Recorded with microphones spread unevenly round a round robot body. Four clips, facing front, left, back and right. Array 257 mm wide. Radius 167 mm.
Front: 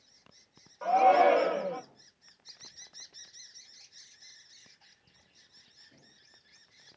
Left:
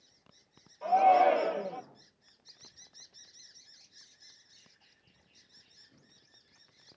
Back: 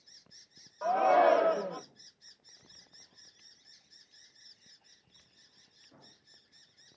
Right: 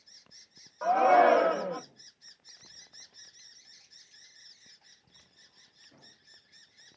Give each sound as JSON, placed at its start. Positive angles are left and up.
{"t": 0.8, "sound": "a shout", "azimuth_deg": -95, "distance_m": 0.8}